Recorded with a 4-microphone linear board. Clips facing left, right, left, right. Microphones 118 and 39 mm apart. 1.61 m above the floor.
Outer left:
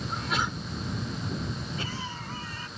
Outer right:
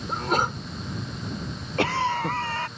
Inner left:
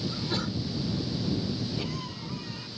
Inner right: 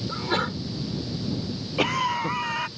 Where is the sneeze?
45° right (ahead or behind).